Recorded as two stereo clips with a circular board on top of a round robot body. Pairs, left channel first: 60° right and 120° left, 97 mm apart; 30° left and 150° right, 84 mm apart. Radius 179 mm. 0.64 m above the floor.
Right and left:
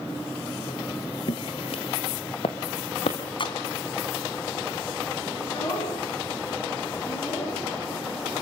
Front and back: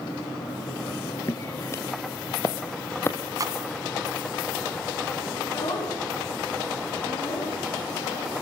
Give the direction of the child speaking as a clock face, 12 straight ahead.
12 o'clock.